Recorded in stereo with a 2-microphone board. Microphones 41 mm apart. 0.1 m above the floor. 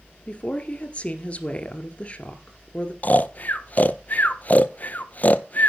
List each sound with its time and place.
0.3 s a woman speaking: 30° left (ahead or behind), 1.5 m
3.0 s snoring: 40° left (ahead or behind), 0.6 m